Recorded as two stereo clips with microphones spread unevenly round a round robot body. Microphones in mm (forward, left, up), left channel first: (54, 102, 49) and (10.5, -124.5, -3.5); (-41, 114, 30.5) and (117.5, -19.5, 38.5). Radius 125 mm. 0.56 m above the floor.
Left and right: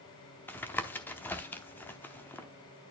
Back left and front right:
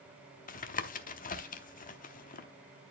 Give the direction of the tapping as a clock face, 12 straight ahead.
6 o'clock.